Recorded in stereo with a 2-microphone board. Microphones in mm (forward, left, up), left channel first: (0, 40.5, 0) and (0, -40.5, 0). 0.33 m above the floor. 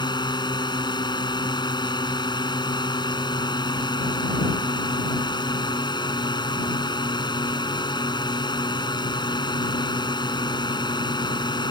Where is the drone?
70° left (ahead or behind).